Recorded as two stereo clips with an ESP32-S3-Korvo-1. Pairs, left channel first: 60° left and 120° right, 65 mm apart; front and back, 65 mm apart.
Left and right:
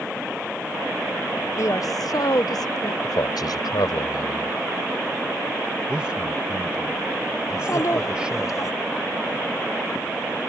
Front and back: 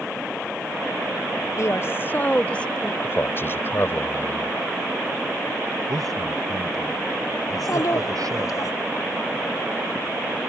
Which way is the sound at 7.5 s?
30° left.